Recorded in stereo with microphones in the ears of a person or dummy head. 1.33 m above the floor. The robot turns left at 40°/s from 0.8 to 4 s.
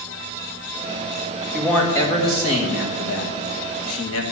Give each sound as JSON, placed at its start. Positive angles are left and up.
{"t": 1.5, "sound": "a man speaking", "azimuth_deg": 180, "distance_m": 2.0}